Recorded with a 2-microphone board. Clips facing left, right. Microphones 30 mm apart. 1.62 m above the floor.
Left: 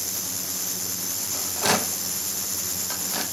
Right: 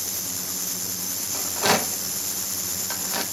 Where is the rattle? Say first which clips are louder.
Right 2 dB; 10° right (ahead or behind), 1.0 m.